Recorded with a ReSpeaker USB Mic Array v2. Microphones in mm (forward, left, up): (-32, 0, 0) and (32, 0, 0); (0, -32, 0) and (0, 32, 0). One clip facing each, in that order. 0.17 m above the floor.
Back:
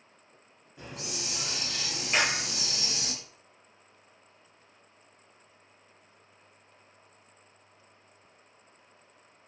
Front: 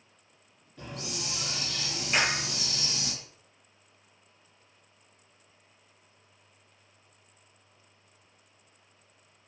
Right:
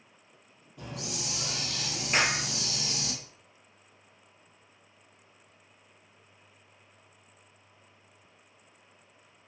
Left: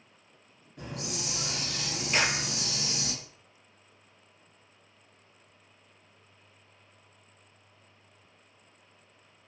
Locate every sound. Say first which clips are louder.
0.8 s a hiss: front 1 dB, left 1 dB; 110° left, 1.2 m
2.1 s a clap: even, right 1 dB; 90° right, 0.9 m